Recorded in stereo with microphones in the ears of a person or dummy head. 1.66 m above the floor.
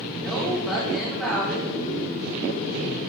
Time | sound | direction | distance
0.2 | a woman speaking | centre (ahead or behind) | 5 m